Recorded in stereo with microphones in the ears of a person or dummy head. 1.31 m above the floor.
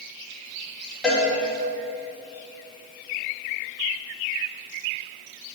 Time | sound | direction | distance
1.0 | a cowbell | centre (ahead or behind) | 1.9 m